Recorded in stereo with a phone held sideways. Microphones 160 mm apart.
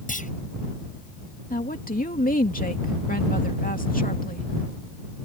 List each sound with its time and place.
0.1 s a clunk: 60° left (ahead or behind)
1.5 s a woman speaking: 65° left (ahead or behind)